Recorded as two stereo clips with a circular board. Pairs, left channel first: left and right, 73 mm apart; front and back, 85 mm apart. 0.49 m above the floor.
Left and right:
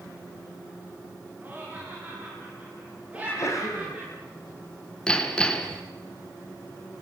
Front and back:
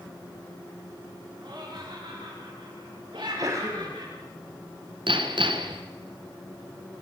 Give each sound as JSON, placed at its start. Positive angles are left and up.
{"t": 1.4, "sound": "laughter", "azimuth_deg": -155, "distance_m": 6.0}
{"t": 3.1, "sound": "a sneeze", "azimuth_deg": 130, "distance_m": 3.0}
{"t": 5.1, "sound": "hammering", "azimuth_deg": 165, "distance_m": 2.5}